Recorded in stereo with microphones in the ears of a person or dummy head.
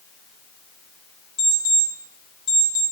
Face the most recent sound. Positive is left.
turn(degrees=60)  # may be behind; listen again after turning